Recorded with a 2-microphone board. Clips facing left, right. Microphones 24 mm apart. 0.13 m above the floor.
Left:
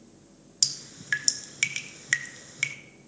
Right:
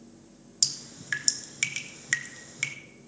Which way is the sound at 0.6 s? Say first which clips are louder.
Left 1 dB; 10° left (ahead or behind).